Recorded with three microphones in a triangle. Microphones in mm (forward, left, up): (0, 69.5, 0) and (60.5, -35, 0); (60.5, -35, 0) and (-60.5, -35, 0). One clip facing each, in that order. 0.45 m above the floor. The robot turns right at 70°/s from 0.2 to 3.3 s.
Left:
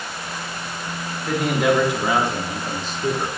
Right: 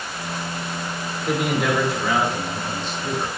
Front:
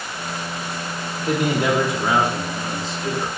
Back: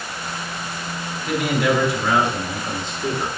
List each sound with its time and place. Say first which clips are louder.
1.3 s a man speaking: left 2 dB, even; 5° left, 1.0 m; by 3.3 s 150° left, 1.0 m